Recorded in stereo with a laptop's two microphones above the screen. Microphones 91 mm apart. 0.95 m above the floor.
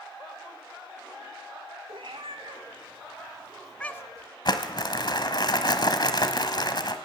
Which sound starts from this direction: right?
A cat meowing, at 1.9 s.